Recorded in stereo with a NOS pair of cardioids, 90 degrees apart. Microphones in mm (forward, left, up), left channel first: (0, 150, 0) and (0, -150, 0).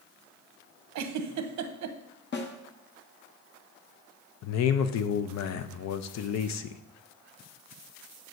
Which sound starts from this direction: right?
A giggle, at 0.9 s.